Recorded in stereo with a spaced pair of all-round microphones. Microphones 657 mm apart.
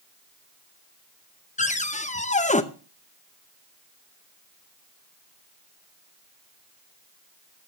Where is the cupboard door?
10° left (ahead or behind), 0.6 m.